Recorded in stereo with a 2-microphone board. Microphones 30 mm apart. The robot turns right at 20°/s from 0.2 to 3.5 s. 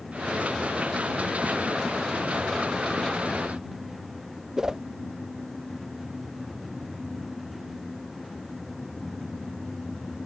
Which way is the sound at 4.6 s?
20° right (ahead or behind).